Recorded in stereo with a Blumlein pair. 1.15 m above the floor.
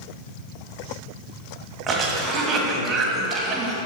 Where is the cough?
25° right, 1.7 m.